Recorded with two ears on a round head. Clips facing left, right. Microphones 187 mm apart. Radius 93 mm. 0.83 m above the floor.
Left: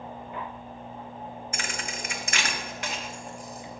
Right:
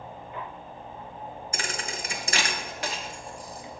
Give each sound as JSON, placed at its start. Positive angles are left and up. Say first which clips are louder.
{"t": 1.5, "sound": "a thud", "louder": "right 3 dB", "side_deg": -30, "distance_m": 0.7}